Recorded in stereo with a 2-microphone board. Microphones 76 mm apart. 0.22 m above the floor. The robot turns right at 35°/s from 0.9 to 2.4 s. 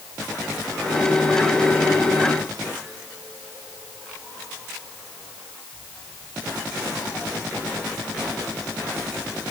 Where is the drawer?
No drawer in this recording.